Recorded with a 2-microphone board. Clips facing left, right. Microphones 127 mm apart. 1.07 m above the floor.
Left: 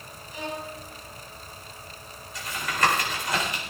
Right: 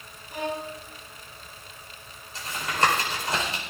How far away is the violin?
About 2 m.